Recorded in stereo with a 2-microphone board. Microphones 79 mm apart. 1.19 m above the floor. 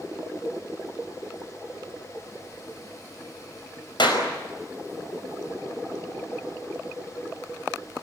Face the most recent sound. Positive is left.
turn(degrees=75)  # may be behind; listen again after turning